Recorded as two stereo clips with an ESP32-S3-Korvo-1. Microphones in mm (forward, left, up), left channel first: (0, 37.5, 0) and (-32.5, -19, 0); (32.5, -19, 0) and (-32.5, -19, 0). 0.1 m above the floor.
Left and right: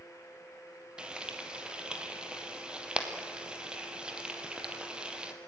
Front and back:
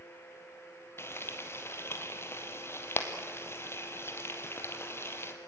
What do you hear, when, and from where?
1.0 s frying: 45° right, 2 m